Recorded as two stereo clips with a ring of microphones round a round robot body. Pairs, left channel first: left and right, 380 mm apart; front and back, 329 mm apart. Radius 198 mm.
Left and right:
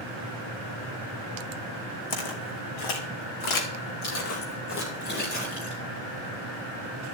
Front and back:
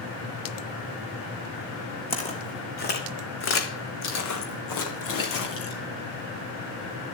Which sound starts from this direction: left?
Footsteps, at 2.1 s.